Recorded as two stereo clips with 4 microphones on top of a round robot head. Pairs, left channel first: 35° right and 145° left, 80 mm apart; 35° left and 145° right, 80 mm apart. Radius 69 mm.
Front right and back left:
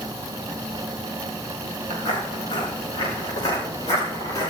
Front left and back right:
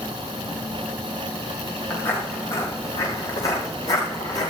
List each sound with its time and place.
1.9 s footsteps: 15° right, 6 m; by 4.5 s 5° left, 7 m